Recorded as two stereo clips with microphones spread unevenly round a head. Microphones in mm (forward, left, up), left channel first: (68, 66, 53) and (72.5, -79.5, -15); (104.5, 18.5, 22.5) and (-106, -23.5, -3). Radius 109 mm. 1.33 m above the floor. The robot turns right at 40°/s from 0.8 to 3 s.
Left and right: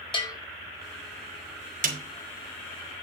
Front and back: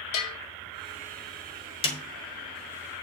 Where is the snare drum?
55° right, 2.5 m; by 2.0 s 50° right, 2.5 m.